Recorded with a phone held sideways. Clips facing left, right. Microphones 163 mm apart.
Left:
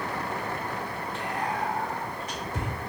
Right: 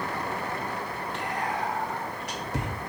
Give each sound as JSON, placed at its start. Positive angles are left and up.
{"t": 1.1, "sound": "whispering", "side_deg": -80, "distance_m": 1.5}